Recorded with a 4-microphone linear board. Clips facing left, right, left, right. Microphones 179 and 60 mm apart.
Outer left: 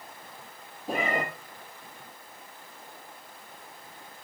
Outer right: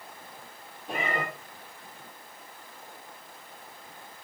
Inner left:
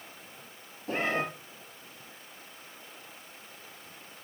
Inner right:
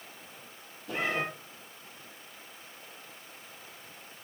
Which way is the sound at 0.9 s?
40° left (ahead or behind).